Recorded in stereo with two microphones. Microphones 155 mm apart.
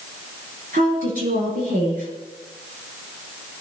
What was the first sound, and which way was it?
A woman speaking, 65° right (ahead or behind).